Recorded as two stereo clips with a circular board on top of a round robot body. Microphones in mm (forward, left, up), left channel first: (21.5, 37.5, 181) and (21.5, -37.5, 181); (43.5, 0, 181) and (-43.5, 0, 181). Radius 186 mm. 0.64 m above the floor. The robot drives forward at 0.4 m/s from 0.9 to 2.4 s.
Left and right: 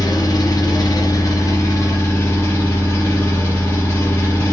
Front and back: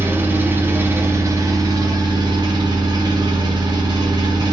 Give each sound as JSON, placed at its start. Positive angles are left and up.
{"t": 0.0, "sound": "an engine running", "azimuth_deg": 120, "distance_m": 0.8}